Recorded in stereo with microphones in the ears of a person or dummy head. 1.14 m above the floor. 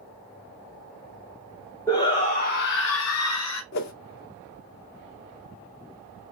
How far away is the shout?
About 0.8 m.